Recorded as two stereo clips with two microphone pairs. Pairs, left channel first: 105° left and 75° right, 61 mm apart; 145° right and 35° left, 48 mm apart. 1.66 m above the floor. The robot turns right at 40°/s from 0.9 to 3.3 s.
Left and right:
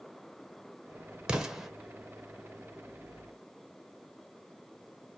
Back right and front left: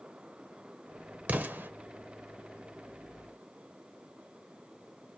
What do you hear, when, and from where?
1.3 s an explosion: straight ahead, 0.8 m; by 1.7 s 15° left, 0.8 m